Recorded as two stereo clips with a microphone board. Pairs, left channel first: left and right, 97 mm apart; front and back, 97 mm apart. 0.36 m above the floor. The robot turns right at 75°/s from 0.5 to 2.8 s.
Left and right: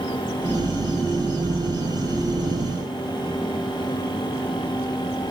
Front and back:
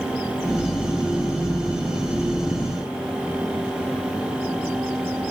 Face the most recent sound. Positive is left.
No sound to turn to.